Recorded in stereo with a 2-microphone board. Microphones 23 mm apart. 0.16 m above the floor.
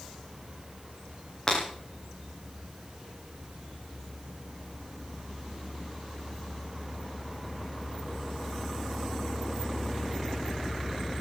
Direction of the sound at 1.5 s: 25° left (ahead or behind).